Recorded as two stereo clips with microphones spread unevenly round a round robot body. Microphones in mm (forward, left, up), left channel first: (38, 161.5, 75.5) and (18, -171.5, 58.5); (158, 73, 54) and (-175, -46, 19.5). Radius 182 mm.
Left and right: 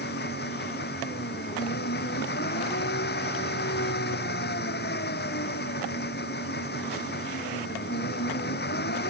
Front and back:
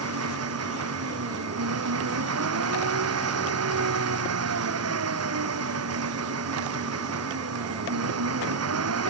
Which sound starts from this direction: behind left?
An engine running, at 0.0 s.